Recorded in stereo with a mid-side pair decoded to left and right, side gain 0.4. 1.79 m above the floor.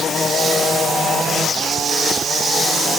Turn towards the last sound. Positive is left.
No sound to turn to.